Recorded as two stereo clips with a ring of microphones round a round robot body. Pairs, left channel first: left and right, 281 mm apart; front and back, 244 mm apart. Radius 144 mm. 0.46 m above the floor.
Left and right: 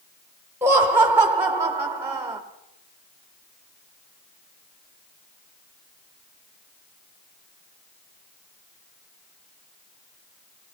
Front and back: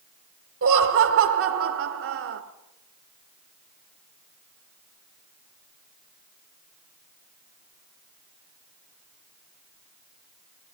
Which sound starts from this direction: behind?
Laughter, at 0.6 s.